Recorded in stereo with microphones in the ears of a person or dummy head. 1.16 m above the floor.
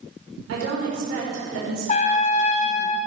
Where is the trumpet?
45° left (ahead or behind), 2 m.